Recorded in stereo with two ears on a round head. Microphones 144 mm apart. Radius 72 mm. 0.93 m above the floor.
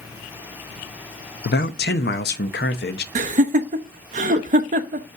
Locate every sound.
1.4 s a man speaking: 70° left (ahead or behind), 0.7 m
3.1 s laughter: 50° right (ahead or behind), 0.6 m